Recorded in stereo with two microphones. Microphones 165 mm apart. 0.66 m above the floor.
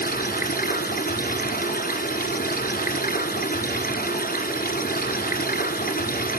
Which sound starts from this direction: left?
Running water, at 0.0 s.